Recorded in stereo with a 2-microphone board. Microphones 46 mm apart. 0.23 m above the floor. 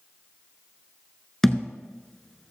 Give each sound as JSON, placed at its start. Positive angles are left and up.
{"t": 1.4, "sound": "a thud", "side_deg": 10, "distance_m": 1.1}